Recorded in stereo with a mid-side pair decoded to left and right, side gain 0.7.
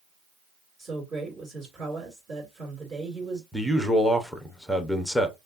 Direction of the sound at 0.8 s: 30° right.